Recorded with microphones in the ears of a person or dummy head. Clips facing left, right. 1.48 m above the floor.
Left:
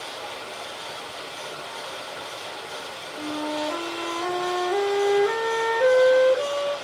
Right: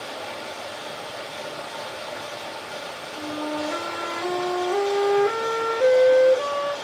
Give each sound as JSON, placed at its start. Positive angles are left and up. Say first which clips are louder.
{"t": 0.0, "sound": "running water", "louder": "right 3 dB", "side_deg": -45, "distance_m": 1.2}
{"t": 3.1, "sound": "a flute", "louder": "even", "side_deg": -10, "distance_m": 2.0}